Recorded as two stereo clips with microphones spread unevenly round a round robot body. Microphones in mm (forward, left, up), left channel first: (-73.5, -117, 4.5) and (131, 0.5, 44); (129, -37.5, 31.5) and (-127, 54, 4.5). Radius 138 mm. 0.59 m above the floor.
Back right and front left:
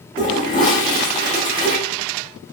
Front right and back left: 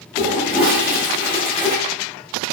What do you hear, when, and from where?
0.2 s a toilet flushing: 130° right, 1.1 m